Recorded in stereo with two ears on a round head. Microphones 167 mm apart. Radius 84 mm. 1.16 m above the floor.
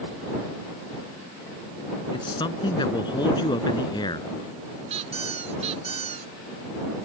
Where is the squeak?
40° right (ahead or behind).